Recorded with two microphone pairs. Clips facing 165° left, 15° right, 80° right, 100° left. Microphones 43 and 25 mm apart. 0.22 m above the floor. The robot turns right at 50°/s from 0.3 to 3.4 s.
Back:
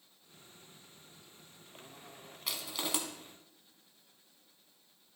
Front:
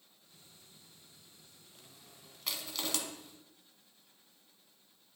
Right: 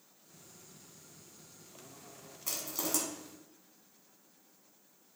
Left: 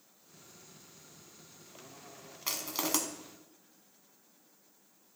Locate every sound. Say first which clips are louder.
2.5 s crushing: back 1 dB, left 3 dB; 75° left, 1.1 m; by 3.0 s 100° left, 1.1 m